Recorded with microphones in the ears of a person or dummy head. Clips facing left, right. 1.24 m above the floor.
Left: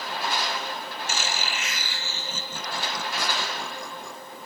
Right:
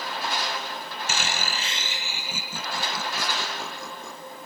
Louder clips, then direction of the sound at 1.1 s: Right 1 dB; 55° right (ahead or behind).